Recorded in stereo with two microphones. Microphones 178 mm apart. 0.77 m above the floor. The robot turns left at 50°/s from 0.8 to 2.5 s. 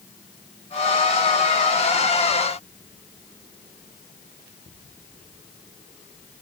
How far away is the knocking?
I don't hear knocking.